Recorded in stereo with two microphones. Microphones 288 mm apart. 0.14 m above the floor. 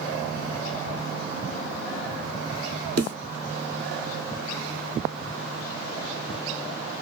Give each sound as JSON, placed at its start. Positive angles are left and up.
{"t": 3.0, "sound": "a snare drum", "side_deg": -65, "distance_m": 2.5}